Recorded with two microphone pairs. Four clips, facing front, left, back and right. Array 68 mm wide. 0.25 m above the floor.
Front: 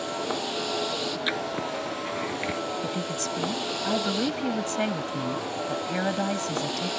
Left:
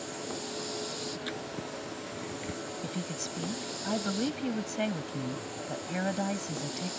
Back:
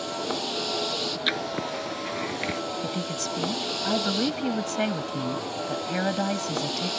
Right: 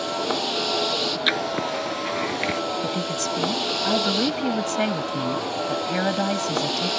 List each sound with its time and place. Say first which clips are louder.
0.0 s a vehicle: right 13 dB, front 1 dB; 85° right
1.3 s writing: right 13 dB, back 2 dB; 95° right
2.8 s a woman speaking: right 11 dB, even; 95° right